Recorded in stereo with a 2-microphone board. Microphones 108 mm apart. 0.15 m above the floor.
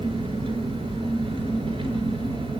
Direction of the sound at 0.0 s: 60° right (ahead or behind).